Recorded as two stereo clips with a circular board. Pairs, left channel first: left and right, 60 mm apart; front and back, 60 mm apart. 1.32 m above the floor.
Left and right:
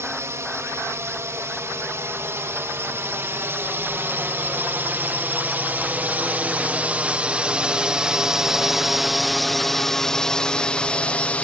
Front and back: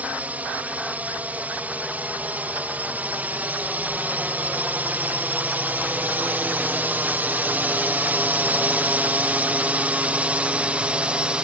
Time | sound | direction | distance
0.0 | a drone | 120° right | ?